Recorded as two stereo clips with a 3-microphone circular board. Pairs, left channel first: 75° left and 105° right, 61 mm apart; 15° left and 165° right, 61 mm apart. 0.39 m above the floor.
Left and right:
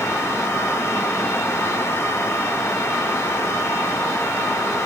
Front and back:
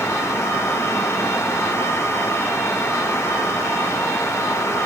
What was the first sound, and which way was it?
Only background noise.